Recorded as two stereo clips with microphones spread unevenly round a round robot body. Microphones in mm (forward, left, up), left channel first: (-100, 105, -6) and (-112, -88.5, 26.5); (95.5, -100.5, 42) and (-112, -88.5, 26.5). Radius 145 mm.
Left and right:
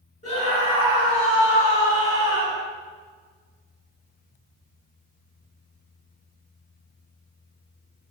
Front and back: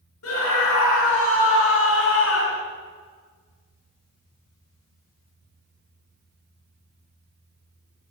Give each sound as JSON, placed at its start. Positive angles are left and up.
{"t": 0.2, "sound": "a scream", "azimuth_deg": 20, "distance_m": 4.5}